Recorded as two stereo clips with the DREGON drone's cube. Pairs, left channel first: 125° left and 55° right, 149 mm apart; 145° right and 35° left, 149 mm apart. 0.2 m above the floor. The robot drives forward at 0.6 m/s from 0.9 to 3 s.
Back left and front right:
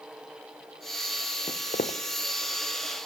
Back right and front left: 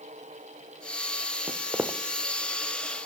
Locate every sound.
1.5 s footsteps: 90° left, 0.7 m; by 2.0 s 115° left, 0.7 m